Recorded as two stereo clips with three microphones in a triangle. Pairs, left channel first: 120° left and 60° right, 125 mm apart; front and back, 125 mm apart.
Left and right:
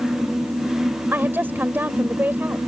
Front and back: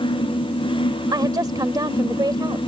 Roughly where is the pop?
I don't hear a pop.